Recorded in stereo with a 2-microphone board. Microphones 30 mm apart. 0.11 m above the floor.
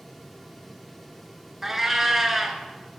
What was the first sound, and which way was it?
A cat meowing, 10° right (ahead or behind).